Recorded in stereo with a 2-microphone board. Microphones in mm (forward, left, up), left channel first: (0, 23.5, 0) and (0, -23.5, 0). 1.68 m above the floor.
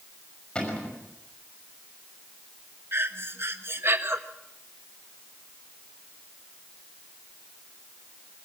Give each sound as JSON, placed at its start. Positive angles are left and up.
{"t": 0.6, "sound": "a cupboard door", "side_deg": 25, "distance_m": 5.5}
{"t": 2.9, "sound": "breathing", "side_deg": -55, "distance_m": 1.4}